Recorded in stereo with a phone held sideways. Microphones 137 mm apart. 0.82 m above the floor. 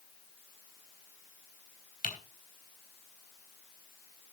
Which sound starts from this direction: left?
Typing on a keyboard, at 2.0 s.